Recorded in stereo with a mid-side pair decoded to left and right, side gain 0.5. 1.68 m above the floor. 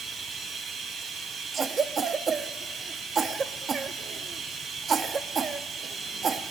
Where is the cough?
45° right, 0.6 m.